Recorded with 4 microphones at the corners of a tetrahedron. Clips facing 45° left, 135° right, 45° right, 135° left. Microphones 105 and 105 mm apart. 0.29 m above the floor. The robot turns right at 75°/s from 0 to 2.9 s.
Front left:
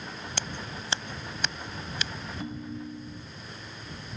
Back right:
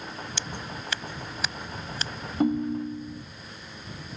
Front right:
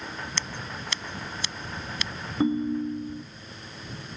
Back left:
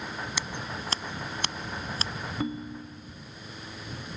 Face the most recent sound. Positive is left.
turn(degrees=-70)